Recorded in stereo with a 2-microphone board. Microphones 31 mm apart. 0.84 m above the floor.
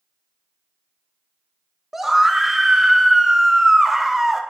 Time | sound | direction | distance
1.9 | a scream | 10° right (ahead or behind) | 0.7 m